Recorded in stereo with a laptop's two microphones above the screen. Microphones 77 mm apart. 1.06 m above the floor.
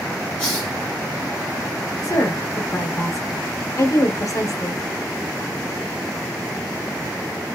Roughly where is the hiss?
Centre.